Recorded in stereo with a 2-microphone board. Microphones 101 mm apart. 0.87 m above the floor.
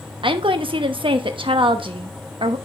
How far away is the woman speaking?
About 0.9 m.